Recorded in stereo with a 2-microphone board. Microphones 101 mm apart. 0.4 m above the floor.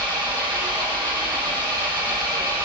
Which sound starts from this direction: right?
An engine running, at 0.0 s.